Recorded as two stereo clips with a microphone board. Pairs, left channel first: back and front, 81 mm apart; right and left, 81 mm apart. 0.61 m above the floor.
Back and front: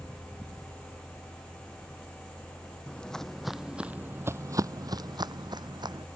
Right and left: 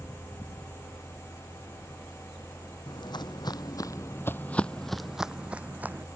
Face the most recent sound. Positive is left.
turn(degrees=20)